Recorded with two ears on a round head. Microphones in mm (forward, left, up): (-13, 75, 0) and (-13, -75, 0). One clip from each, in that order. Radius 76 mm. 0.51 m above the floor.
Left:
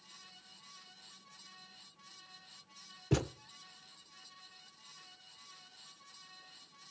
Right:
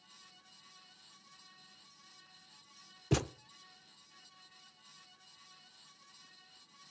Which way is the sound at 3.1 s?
20° right (ahead or behind).